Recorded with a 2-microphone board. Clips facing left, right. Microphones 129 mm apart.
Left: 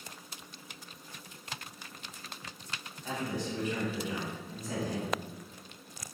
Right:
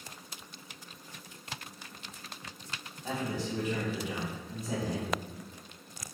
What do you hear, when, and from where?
3.0 s a man speaking: 30° right (ahead or behind), 1.6 m